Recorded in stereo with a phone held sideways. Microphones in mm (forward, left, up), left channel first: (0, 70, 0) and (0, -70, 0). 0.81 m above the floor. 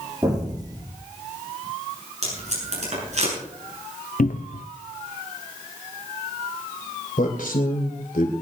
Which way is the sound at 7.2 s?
75° left (ahead or behind).